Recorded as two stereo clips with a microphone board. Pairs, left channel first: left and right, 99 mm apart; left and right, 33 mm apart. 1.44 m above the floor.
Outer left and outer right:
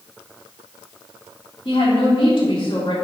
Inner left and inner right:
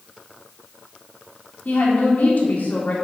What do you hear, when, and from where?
1.6 s a woman speaking: 45° left (ahead or behind), 2.5 m